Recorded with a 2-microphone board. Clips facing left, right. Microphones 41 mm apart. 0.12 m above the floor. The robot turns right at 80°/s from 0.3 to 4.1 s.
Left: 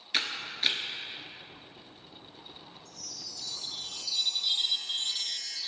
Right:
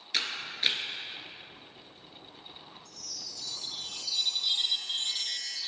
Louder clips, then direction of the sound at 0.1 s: Left 1 dB; 20° left (ahead or behind).